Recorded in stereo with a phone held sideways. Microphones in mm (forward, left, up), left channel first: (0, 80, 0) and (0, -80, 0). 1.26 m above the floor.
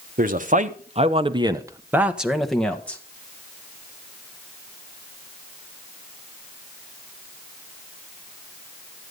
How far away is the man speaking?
About 1.2 m.